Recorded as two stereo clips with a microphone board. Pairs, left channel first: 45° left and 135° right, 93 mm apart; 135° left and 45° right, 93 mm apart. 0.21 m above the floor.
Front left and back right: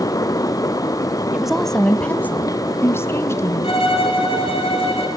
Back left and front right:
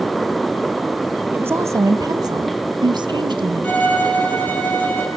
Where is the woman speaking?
65° right, 0.9 m; by 3.8 s 10° right, 2.5 m.